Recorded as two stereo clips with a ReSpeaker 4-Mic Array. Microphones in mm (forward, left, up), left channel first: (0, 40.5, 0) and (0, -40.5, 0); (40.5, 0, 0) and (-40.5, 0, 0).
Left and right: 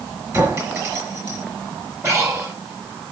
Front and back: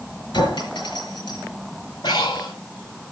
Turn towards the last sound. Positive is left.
turn(degrees=-35)